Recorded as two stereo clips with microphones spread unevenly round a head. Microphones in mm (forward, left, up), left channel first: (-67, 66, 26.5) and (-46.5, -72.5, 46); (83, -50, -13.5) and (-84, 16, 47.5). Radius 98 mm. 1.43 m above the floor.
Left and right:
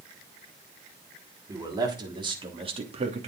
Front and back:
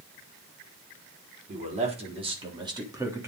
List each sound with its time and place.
1.5 s a man speaking: 150° right, 4 m; by 3.3 s 125° right, 3 m